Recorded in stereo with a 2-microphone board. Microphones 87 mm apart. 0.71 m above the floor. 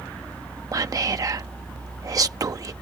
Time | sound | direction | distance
0.7 | whispering | 40° right (ahead or behind) | ?